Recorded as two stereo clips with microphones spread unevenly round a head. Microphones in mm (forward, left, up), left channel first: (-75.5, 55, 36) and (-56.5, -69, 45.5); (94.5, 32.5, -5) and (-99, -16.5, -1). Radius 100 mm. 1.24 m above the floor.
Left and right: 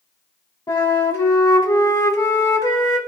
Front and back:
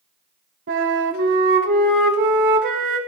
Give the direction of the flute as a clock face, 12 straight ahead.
7 o'clock.